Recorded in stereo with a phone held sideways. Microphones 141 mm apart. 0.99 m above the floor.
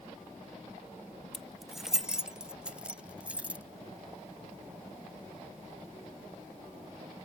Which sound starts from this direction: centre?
Keys jangling, at 1.3 s.